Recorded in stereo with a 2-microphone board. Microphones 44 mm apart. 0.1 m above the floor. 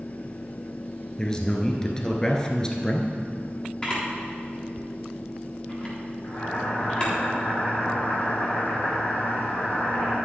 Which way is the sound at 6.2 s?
35° left (ahead or behind).